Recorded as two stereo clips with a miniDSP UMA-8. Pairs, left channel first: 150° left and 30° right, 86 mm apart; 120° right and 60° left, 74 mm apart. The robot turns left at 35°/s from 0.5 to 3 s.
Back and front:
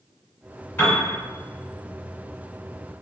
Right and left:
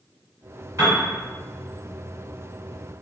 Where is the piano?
90° left, 1.7 m; by 1.0 s 85° left, 1.7 m.